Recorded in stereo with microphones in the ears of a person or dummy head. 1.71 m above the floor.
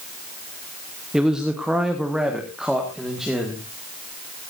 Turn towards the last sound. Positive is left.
turn(degrees=-5)  # may be behind; listen again after turning